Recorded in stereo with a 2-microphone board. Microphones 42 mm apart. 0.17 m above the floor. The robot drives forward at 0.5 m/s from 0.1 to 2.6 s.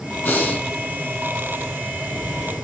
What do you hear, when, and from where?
0.2 s breathing: 50° left (ahead or behind), 0.7 m; by 0.7 s 45° left (ahead or behind), 0.8 m